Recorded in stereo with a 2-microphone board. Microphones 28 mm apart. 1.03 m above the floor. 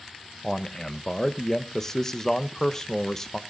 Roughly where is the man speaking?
Centre.